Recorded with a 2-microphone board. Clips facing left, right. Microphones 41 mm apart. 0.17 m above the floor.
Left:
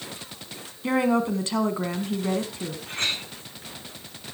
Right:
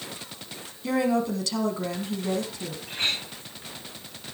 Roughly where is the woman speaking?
Left.